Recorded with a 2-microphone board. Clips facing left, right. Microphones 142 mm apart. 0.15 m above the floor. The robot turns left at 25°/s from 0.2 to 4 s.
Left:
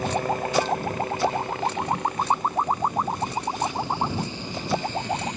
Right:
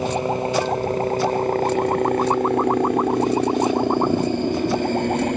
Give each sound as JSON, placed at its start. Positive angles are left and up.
{"t": 0.0, "sound": "a helicopter", "side_deg": -20}